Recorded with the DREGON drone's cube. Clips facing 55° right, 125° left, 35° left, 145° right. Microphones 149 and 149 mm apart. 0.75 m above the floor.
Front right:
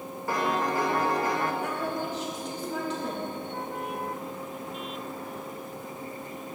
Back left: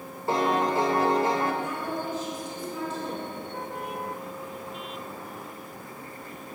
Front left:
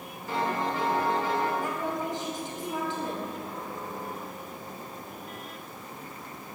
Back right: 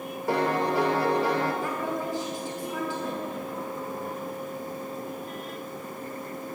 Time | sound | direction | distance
0.3 | a piano | 170° right | 1.3 m
1.6 | a woman speaking | 35° right | 4.5 m